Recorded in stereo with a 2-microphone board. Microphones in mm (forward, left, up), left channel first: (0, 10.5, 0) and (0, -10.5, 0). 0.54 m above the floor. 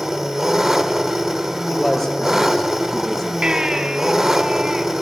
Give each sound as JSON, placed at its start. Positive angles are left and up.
{"t": 0.0, "sound": "an engine running", "side_deg": -25, "distance_m": 1.2}
{"t": 1.7, "sound": "a man speaking", "side_deg": 0, "distance_m": 9.0}
{"t": 3.4, "sound": "a baby crying", "side_deg": -45, "distance_m": 3.0}